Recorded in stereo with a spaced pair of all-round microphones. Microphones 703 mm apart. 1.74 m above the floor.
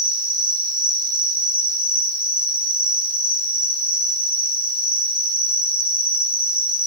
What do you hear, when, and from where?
0.0 s an insect: 10° right (ahead or behind), 1.9 m